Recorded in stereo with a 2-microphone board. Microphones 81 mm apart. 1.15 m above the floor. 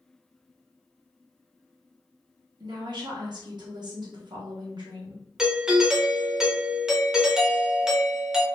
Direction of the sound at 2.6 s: 60° right (ahead or behind).